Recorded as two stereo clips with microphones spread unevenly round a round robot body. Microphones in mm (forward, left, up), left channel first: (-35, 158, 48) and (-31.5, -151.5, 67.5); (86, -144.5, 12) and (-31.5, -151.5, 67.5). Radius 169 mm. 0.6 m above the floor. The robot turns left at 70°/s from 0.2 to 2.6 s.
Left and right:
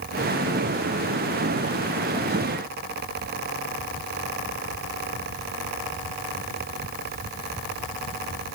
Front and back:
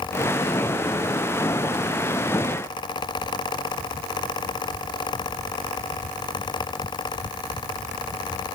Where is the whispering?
No whispering in this recording.